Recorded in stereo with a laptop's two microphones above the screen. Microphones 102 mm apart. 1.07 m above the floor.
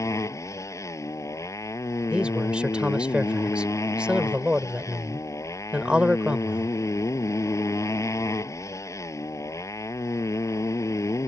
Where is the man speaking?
10° right (ahead or behind).